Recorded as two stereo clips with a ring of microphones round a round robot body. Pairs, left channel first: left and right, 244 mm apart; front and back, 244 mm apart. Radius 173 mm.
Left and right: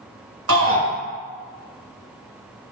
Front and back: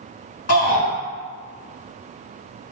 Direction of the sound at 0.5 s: 65° right.